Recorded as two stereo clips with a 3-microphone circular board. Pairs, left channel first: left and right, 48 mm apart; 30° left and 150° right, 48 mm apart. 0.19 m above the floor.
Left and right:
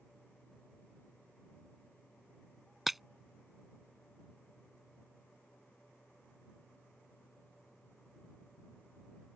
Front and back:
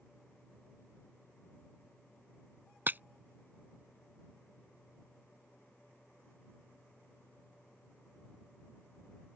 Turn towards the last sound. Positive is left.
turn(degrees=-175)